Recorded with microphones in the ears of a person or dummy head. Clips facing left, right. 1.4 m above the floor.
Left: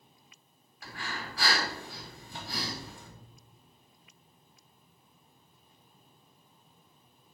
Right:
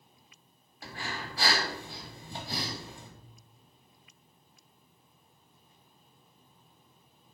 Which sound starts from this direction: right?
Breathing, at 0.8 s.